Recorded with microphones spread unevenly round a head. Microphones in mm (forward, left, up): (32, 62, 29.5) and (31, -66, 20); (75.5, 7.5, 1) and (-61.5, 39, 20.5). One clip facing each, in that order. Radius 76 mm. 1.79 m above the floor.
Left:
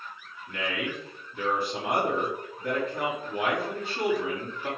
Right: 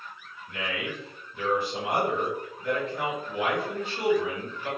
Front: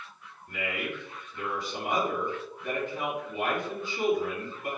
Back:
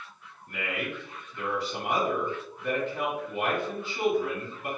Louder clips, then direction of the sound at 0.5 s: Left 1 dB, even; 145° left.